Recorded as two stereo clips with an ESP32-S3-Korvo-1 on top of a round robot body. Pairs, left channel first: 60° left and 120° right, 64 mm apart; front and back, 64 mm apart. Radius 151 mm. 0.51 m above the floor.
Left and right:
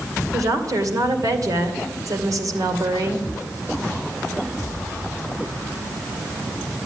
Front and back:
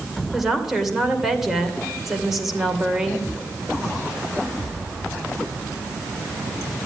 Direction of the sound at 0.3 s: 95° right.